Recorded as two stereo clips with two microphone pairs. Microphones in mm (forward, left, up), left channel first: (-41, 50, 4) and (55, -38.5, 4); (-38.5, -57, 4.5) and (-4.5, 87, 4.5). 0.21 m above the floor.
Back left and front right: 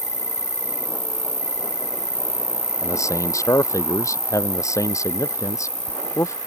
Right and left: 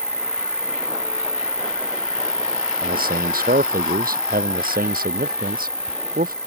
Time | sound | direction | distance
0.0 | an insect | 20° right | ?
2.8 | a man speaking | 70° left | ?